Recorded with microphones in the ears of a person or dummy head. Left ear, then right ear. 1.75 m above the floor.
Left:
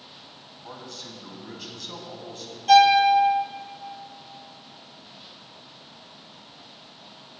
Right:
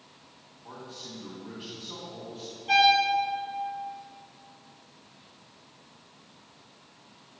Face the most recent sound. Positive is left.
turn(degrees=85)